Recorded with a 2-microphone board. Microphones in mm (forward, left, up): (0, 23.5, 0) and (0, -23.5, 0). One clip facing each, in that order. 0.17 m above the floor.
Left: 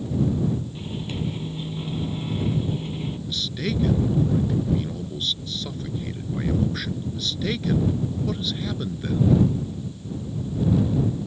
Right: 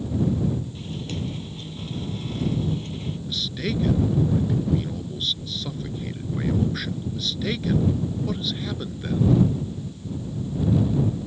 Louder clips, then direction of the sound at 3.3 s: Right 1 dB; centre (ahead or behind).